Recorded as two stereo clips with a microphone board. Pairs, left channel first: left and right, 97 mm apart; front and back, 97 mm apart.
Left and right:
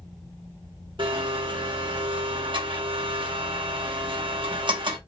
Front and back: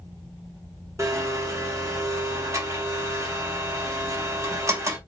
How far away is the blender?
About 0.8 m.